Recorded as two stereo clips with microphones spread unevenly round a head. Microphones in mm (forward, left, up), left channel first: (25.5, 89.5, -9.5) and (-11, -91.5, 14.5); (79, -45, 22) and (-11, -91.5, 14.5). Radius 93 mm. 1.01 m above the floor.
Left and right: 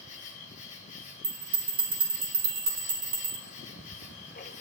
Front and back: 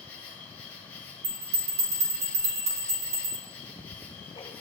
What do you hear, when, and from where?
0.0 s an insect: 105° left, 1.7 m
1.2 s a bell: 170° right, 3 m
3.5 s ticking: 45° left, 1.0 m